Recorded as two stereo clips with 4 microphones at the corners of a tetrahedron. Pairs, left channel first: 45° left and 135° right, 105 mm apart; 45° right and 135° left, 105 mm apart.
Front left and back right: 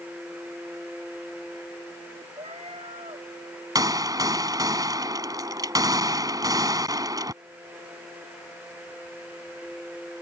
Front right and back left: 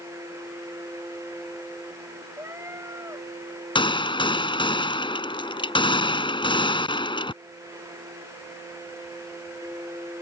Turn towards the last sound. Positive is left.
turn(degrees=-80)